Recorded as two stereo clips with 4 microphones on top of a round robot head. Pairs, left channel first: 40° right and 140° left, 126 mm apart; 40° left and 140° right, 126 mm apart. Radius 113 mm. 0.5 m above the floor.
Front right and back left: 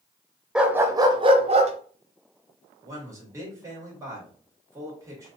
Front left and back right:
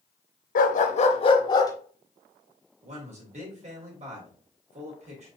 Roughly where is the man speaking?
Behind right.